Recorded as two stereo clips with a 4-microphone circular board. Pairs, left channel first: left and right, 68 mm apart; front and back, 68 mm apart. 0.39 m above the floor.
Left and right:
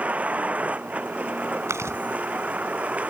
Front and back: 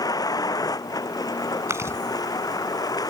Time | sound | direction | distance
0.0 | a vehicle | 20° right | ?
1.7 | chewing | 135° right | ?